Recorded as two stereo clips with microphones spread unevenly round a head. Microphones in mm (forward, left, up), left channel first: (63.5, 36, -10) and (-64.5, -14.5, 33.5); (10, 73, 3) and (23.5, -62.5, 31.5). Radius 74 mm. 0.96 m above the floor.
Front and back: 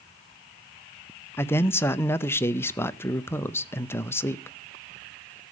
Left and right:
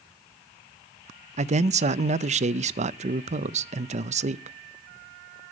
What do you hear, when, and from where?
1.4 s a man speaking: 40° right, 0.5 m